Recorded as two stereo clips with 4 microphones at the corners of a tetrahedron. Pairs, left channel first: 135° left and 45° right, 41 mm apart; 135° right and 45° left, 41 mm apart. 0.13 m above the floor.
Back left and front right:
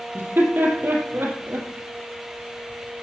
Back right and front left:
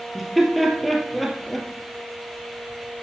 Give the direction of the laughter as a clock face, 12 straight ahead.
2 o'clock.